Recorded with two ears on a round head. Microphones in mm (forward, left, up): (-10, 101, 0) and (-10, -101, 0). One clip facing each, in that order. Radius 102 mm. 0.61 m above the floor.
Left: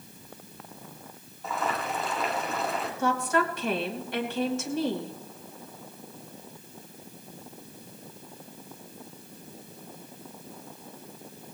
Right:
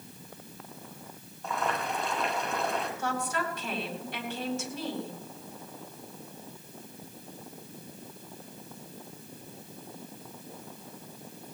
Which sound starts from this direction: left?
A woman speaking, at 3.0 s.